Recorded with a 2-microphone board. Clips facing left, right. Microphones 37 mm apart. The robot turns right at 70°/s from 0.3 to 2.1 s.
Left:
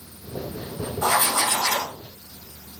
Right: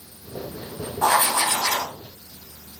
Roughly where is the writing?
Ahead right.